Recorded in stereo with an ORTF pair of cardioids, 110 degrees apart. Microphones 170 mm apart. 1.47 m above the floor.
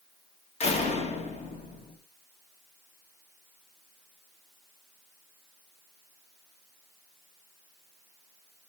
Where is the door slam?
40° left, 1.8 m.